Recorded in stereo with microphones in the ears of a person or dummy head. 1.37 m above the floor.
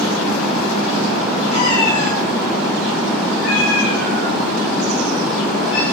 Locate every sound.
1.5 s a cat meowing: 60° left (ahead or behind), 9 m; by 5.8 s 80° left, 6.5 m